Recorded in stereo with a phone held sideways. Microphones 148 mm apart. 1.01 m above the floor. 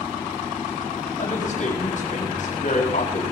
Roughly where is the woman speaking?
Left.